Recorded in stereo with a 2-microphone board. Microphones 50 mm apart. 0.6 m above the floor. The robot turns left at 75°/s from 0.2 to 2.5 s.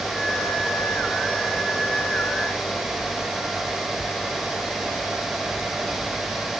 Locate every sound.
Only background noise.